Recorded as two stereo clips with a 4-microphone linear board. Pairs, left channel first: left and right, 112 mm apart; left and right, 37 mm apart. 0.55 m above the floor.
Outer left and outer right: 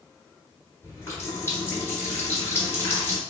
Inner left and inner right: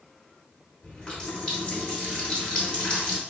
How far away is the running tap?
About 1.4 m.